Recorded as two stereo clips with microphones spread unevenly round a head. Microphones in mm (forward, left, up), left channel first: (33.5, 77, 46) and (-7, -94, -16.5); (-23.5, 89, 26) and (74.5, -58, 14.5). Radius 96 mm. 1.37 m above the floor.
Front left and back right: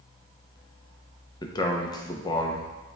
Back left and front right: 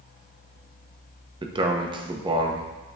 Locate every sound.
1.4 s a man speaking: 10° left, 1.0 m